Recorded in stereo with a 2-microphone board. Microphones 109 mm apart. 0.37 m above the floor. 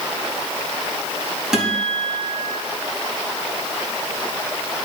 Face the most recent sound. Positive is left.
turn(degrees=-5)  # may be behind; listen again after turning